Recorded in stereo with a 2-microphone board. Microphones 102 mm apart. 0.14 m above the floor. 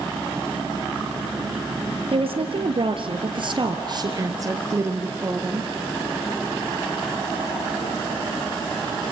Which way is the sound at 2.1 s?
65° right (ahead or behind).